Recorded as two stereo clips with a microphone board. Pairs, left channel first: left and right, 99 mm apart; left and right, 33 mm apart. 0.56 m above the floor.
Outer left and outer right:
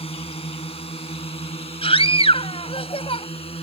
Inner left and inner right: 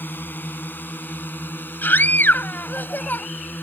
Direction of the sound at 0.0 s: 75° left (ahead or behind).